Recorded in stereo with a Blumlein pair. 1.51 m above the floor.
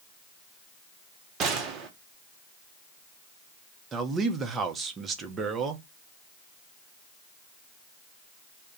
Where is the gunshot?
30° right, 0.8 m.